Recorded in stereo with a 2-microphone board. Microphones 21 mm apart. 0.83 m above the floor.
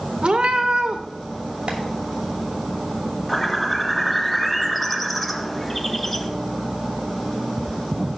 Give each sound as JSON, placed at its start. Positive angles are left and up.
{"t": 0.2, "sound": "a cat meowing", "side_deg": -65, "distance_m": 0.8}
{"t": 1.7, "sound": "tapping", "side_deg": -70, "distance_m": 2.5}
{"t": 3.3, "sound": "a bird", "side_deg": 5, "distance_m": 0.9}